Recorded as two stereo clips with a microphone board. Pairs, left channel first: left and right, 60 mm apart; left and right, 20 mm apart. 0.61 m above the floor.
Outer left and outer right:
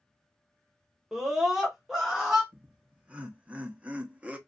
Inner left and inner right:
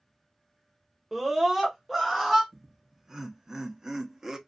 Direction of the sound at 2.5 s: 20° right (ahead or behind).